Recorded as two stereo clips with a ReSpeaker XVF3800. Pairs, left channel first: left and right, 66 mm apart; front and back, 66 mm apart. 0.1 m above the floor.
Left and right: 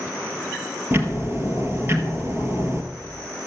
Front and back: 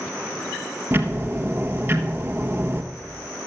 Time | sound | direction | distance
0.9 | ticking | 135° right | 1.3 m